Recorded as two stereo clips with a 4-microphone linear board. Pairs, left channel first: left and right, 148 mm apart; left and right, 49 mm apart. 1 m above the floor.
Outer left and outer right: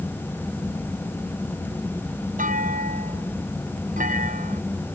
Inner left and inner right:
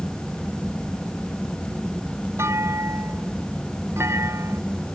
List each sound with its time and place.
2.4 s a clunk: 65° right (ahead or behind)